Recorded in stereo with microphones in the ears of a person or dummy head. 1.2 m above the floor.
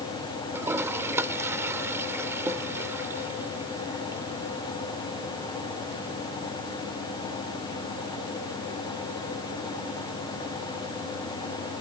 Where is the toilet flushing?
10° right (ahead or behind).